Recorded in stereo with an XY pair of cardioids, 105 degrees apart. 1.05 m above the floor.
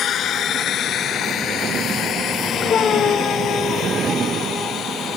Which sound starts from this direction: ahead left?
A drone, at 0.0 s.